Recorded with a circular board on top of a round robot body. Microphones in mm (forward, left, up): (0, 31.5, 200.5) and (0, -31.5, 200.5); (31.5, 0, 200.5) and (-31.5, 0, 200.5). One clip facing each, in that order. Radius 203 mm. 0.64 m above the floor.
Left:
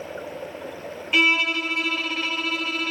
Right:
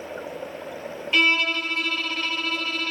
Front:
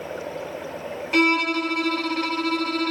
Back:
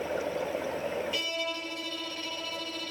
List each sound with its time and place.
1.1 s a violin: 15° left, 2 m